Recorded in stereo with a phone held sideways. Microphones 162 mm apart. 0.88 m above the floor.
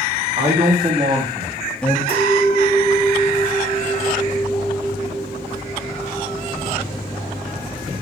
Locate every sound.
0.4 s a man speaking: 45° right (ahead or behind), 1.1 m; by 2.0 s 15° left (ahead or behind), 0.6 m
2.1 s a clink: 65° left (ahead or behind), 1.6 m